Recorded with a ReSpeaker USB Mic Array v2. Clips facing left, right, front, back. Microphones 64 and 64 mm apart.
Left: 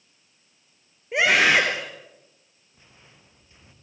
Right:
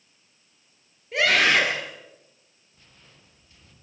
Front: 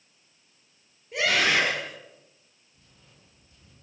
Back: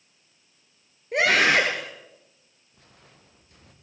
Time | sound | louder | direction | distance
1.1 | a scream | left 2 dB, back 4 dB | 155° left | 3.5 m
2.7 | footsteps | left 2 dB, back 5 dB | 160° left | 3.5 m